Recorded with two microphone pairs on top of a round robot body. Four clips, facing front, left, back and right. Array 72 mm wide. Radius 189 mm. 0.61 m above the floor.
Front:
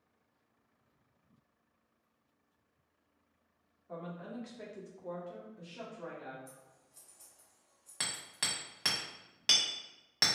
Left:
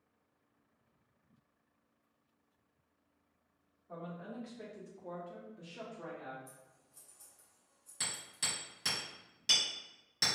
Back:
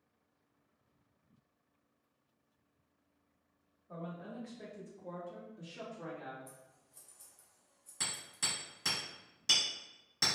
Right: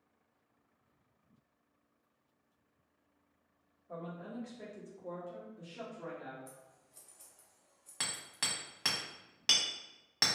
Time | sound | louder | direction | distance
3.9 | a woman speaking | right 1 dB, front 2 dB | 10° left | 1.5 m
6.5 | scissors | right 3 dB, even | 85° right | 0.7 m
8.0 | hammering | right 2 dB, front 2 dB | 45° right | 1.3 m